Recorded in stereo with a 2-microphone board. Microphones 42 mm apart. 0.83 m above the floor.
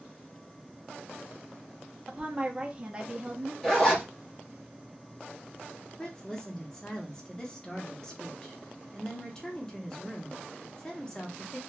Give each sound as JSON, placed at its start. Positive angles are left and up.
{"t": 2.1, "sound": "a woman speaking", "side_deg": -20, "distance_m": 0.8}
{"t": 3.6, "sound": "a zipper", "side_deg": 10, "distance_m": 1.3}
{"t": 6.0, "sound": "a woman speaking", "side_deg": 15, "distance_m": 1.0}